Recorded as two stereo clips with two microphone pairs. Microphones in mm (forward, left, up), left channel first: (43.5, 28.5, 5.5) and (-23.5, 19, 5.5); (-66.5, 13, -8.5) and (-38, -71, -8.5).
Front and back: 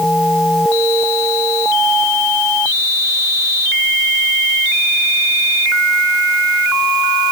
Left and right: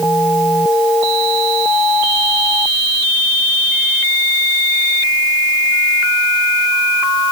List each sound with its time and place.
Only background noise.